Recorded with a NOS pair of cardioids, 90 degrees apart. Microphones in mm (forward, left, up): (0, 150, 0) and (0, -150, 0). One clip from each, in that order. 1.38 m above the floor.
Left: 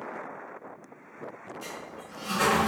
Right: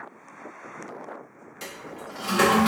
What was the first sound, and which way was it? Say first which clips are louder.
A toilet flushing: right 6 dB; 70° right.